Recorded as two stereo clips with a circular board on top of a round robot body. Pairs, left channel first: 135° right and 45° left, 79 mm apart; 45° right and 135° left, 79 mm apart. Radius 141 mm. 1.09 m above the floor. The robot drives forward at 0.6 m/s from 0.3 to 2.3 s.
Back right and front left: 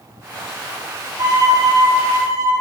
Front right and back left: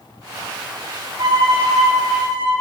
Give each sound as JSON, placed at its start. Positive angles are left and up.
{"t": 1.2, "sound": "a violin", "azimuth_deg": 95, "distance_m": 3.5}